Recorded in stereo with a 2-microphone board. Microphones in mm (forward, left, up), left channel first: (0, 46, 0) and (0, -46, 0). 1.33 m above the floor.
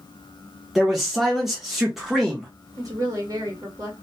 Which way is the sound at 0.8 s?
Centre (ahead or behind).